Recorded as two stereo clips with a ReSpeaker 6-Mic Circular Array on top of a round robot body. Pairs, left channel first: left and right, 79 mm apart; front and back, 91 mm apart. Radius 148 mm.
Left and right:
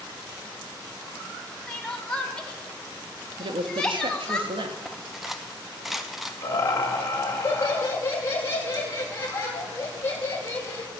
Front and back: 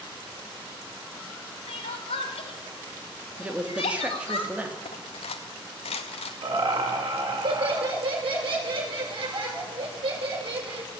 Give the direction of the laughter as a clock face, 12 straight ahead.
7 o'clock.